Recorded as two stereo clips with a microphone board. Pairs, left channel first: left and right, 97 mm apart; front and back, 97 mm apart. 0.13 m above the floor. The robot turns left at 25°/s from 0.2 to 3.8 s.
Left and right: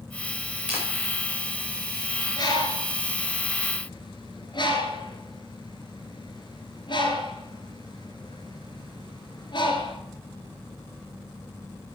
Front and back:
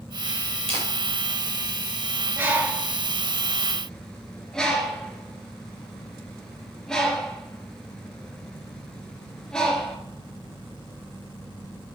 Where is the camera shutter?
165° right, 5.5 m; by 0.8 s 170° right, 5.5 m.